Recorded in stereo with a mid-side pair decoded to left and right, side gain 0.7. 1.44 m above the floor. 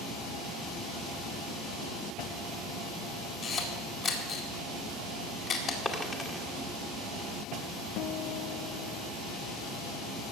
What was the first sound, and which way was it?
A camera shutter, 40° left.